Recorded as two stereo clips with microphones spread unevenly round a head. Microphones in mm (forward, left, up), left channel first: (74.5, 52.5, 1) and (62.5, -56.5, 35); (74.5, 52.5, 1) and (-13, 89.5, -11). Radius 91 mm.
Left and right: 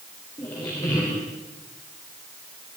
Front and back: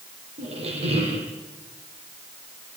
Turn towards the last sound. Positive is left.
turn(degrees=160)